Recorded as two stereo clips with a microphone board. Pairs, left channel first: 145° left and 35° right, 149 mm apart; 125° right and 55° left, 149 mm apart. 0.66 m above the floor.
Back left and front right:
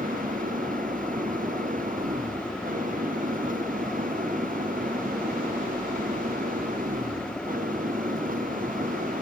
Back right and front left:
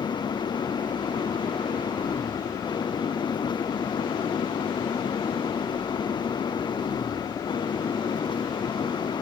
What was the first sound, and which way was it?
An engine running, 65° right.